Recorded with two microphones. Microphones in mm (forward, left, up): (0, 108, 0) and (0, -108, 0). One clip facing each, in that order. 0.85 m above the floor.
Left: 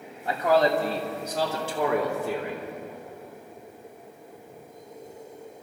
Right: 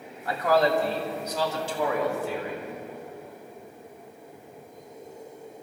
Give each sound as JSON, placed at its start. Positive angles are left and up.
{"t": 0.2, "sound": "a man speaking", "side_deg": 25, "distance_m": 2.5}